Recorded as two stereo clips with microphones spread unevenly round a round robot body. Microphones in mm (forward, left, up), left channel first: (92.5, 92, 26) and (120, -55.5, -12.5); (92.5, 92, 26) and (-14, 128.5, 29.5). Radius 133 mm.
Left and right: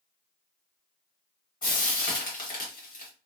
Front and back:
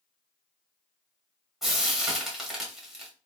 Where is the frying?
75° left, 1.9 m.